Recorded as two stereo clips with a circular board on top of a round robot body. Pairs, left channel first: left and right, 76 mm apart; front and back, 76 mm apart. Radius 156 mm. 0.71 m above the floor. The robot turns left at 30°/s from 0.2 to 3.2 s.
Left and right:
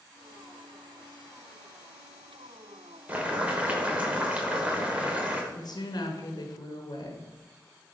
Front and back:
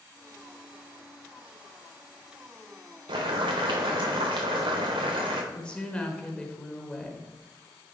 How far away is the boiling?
About 0.8 m.